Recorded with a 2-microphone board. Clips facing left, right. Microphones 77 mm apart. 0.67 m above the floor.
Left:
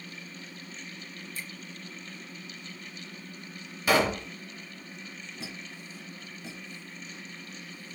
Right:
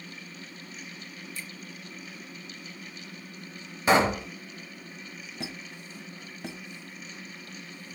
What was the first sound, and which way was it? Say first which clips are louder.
A finger snap: left 1 dB; 50° left (ahead or behind).